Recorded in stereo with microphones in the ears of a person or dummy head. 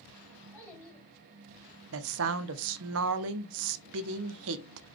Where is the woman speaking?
70° right (ahead or behind), 0.5 m.